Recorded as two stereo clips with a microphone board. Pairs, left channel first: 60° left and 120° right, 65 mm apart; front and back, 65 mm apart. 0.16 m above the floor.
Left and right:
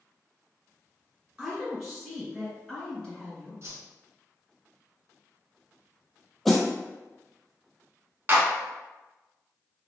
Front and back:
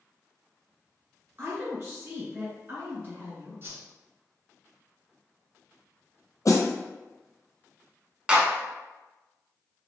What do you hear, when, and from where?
1.4 s a woman speaking: 170° left, 1.8 m; by 3.5 s 140° left, 2.5 m
3.6 s a whoosh: 145° right, 1.0 m
6.5 s a snare drum: 25° right, 1.0 m
8.3 s a clap: 115° right, 0.9 m